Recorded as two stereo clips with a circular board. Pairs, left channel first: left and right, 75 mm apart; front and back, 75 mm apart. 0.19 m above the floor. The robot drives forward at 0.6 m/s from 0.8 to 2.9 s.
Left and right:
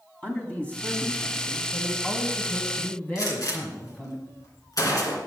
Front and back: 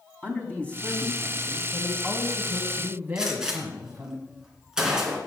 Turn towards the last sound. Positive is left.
turn(degrees=100)